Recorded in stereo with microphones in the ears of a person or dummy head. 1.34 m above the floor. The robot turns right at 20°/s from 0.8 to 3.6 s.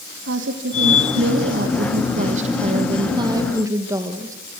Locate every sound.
0.3 s a woman speaking: 70° right, 1.9 m; by 4.3 s 15° right, 1.9 m